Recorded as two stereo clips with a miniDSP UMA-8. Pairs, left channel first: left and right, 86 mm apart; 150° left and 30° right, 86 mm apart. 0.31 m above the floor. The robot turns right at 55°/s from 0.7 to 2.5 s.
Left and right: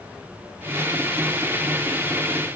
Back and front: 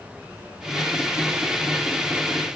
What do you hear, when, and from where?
Only background noise.